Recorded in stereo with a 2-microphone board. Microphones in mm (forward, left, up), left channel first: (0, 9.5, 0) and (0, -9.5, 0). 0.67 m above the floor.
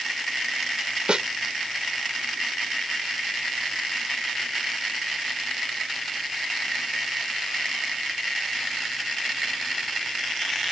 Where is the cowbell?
I don't hear a cowbell.